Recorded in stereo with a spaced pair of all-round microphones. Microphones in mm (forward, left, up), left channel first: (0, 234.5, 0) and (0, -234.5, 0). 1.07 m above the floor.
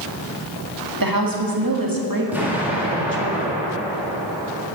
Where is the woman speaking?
45° right (ahead or behind), 1.6 m.